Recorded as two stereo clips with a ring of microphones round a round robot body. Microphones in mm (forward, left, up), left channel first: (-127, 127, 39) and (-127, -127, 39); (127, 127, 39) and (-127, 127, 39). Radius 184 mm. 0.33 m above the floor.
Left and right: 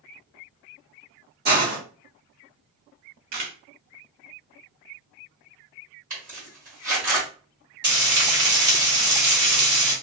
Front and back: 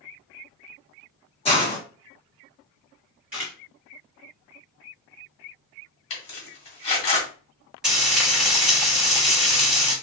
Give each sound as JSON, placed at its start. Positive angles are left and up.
{"t": 1.4, "sound": "a hiss", "azimuth_deg": -60, "distance_m": 1.2}
{"t": 3.3, "sound": "a camera shutter", "azimuth_deg": -95, "distance_m": 1.1}
{"t": 6.1, "sound": "a zipper", "azimuth_deg": -30, "distance_m": 1.4}
{"t": 7.8, "sound": "frying", "azimuth_deg": -95, "distance_m": 1.9}